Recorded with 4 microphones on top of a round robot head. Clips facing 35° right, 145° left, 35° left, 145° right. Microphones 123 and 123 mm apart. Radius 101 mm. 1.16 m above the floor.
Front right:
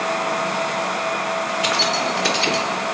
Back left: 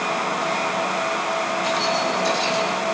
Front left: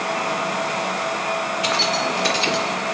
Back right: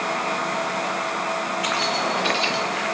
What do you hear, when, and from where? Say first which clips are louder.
1.6 s keys jangling: even, front left 2 dB; 25° right, 3 m; by 2.7 s 5° right, 2.5 m